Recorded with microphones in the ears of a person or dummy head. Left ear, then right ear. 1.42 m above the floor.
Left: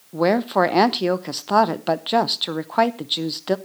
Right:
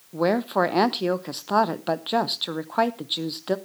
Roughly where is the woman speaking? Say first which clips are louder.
Left 4 dB; centre.